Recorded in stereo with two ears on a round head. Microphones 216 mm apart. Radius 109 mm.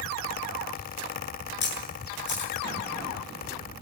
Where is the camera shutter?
50° left (ahead or behind), 7.5 m.